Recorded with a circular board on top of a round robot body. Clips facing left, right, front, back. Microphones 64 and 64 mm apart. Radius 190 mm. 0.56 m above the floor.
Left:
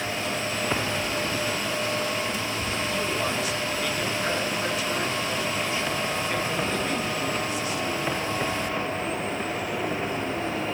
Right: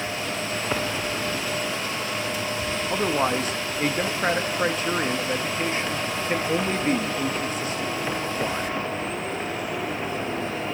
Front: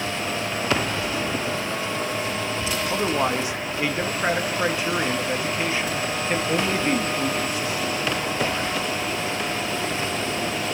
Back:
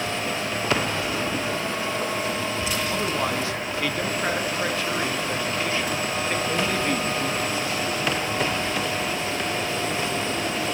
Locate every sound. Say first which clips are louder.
2.9 s a man speaking: right 7 dB, front 5 dB; 65° right, 1.4 m